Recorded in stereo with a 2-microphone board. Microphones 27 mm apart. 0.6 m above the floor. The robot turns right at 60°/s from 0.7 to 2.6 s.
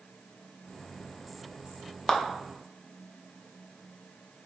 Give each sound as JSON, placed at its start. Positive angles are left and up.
{"t": 2.1, "sound": "a clap", "side_deg": 25, "distance_m": 0.5}